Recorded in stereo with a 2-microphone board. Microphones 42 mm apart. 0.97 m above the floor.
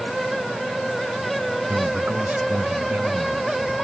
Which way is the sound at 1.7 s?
50° right (ahead or behind).